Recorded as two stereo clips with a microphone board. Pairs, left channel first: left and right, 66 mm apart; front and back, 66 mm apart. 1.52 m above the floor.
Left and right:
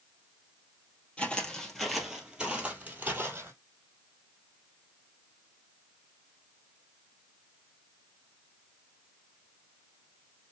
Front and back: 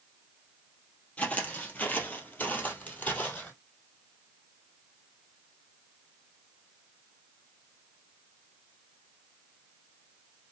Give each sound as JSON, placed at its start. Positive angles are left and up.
{"t": 1.2, "sound": "footsteps", "azimuth_deg": 45, "distance_m": 1.6}